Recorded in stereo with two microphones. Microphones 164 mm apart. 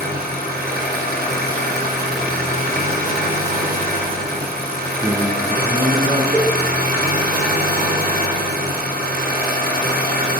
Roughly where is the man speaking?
Right.